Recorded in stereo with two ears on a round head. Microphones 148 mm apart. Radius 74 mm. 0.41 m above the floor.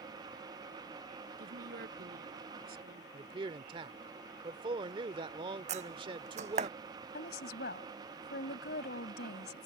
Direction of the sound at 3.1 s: 30° right (ahead or behind).